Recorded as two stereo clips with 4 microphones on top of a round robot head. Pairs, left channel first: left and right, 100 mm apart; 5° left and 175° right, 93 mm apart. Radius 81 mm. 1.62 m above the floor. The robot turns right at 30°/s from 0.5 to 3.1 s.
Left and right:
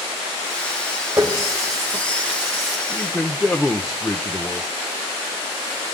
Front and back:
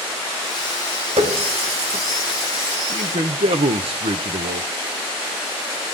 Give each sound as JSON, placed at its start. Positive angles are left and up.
{"t": 1.2, "sound": "a running tap", "azimuth_deg": -170, "distance_m": 1.9}
{"t": 2.9, "sound": "a man speaking", "azimuth_deg": 165, "distance_m": 1.0}